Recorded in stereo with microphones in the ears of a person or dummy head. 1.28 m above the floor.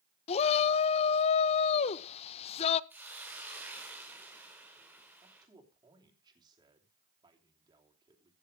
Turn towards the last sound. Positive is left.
turn(degrees=-20)  # may be behind; listen again after turning